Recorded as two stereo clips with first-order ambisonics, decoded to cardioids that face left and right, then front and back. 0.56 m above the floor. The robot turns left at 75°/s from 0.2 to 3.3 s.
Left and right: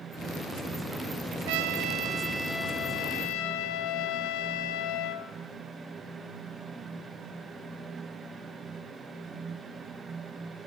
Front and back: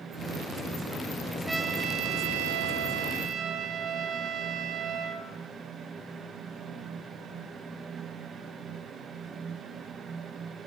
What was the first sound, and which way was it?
A trumpet, 100° right.